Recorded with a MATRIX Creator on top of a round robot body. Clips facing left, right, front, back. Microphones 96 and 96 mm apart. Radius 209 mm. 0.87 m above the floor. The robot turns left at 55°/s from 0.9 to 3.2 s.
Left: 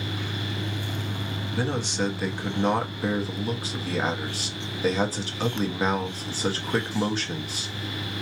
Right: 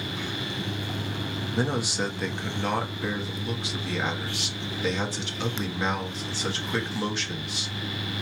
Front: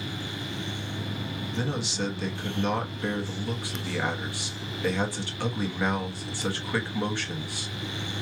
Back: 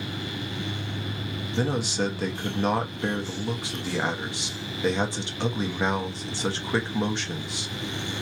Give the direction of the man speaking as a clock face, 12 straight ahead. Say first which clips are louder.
Even, back 5 dB; 5 o'clock.